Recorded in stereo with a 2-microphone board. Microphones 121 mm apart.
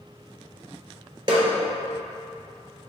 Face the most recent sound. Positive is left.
turn(degrees=-40)  # may be behind; listen again after turning